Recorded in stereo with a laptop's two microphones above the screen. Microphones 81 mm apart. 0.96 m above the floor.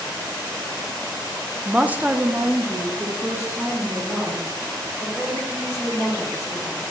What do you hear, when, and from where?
1.6 s a woman speaking: 10° right (ahead or behind), 0.5 m; by 6.8 s 25° right (ahead or behind), 3.5 m